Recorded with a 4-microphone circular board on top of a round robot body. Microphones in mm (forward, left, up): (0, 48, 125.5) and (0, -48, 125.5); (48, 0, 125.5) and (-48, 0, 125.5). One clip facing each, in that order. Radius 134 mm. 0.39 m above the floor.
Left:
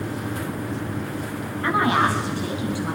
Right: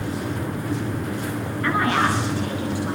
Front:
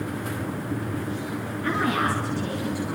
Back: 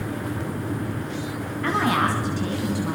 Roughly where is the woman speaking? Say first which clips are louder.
Left 1 dB, back 3 dB; behind.